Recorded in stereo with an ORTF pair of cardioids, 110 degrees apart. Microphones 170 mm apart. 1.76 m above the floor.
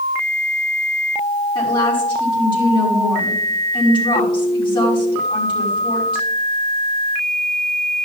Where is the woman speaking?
30° left, 5 m.